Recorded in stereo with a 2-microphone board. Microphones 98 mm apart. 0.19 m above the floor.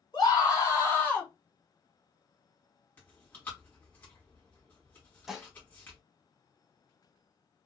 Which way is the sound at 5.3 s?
5° right (ahead or behind).